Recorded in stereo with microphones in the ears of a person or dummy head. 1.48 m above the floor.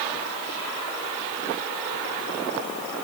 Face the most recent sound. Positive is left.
No sound to turn to.